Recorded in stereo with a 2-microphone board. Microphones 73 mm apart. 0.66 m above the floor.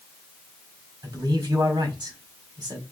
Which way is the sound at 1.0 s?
60° right (ahead or behind).